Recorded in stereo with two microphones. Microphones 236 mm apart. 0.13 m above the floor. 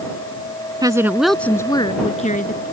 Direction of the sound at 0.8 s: 15° right (ahead or behind).